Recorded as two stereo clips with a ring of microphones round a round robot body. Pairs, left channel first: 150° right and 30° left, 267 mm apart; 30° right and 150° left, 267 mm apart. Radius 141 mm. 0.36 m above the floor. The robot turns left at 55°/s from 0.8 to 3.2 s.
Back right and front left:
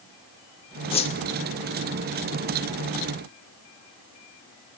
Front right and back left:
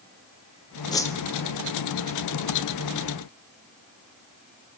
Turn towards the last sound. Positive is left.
turn(degrees=140)